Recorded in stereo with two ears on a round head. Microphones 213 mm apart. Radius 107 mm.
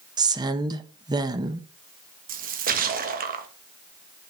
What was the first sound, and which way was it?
A woman speaking, 20° right (ahead or behind).